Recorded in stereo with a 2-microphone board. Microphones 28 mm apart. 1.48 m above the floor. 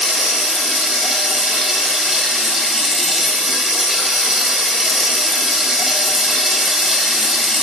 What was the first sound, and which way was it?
Running water, 10° right (ahead or behind).